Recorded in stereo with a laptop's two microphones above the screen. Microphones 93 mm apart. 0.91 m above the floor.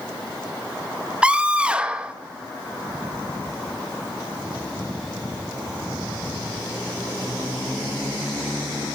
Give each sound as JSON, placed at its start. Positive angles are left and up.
{"t": 1.2, "sound": "a scream", "side_deg": -10, "distance_m": 0.7}